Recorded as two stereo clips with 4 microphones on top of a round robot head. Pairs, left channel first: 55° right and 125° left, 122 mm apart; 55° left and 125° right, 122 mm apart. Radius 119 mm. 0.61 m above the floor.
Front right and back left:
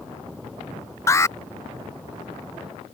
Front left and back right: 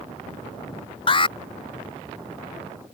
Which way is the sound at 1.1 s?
10° left.